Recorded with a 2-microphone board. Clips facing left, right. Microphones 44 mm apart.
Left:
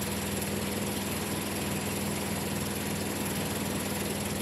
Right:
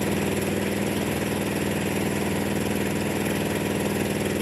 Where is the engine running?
55° right (ahead or behind), 1.6 m.